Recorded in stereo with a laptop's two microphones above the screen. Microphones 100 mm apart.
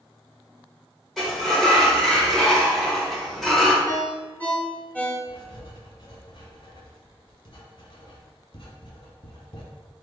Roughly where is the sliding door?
Centre.